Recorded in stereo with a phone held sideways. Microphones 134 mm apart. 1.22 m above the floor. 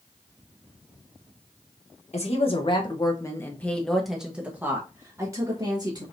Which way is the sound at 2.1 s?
55° left (ahead or behind).